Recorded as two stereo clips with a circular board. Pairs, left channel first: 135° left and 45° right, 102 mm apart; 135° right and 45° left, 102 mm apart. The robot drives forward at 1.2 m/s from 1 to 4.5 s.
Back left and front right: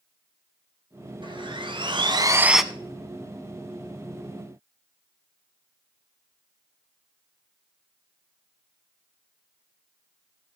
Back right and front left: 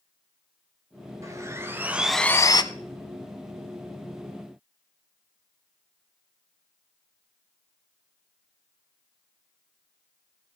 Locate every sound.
1.2 s sawing: 15° right, 1.5 m; by 2.6 s 135° right, 0.6 m